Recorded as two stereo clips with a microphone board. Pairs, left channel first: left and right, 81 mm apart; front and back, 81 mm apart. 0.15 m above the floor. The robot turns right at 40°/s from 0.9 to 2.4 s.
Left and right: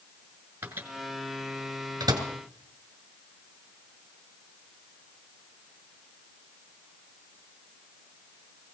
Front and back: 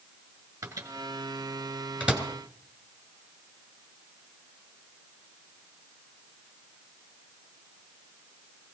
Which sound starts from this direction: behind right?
A microwave, at 0.6 s.